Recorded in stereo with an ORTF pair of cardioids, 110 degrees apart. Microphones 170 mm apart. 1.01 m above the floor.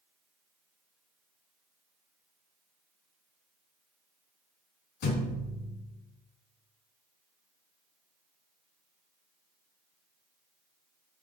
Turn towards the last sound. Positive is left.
turn(degrees=70)